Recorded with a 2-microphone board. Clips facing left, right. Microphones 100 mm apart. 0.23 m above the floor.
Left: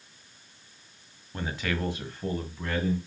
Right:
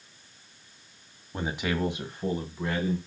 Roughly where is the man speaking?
Centre.